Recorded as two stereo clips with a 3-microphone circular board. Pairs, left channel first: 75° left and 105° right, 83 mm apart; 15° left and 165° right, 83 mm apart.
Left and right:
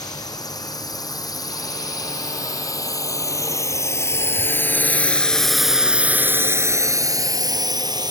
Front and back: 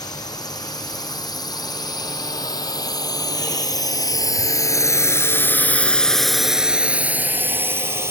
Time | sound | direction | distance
0.0 | a drone | 45° left | ?